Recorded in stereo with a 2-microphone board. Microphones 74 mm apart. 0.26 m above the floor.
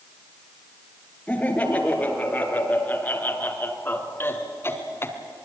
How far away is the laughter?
About 5.5 m.